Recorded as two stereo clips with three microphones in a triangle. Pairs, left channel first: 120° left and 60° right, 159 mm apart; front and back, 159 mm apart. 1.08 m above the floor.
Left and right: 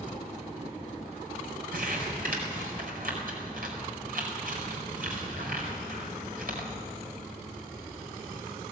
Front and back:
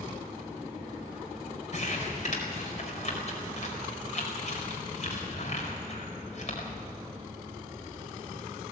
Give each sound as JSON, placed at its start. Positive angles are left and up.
{"t": 1.7, "sound": "crumpling", "azimuth_deg": -40, "distance_m": 4.5}